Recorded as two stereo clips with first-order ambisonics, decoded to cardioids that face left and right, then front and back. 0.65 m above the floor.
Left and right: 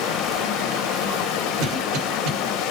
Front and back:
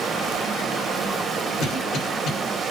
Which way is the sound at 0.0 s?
110° left.